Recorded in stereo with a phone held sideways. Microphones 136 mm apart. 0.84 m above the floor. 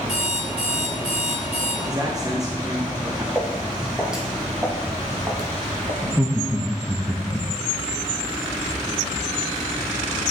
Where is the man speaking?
25° right (ahead or behind), 0.9 m.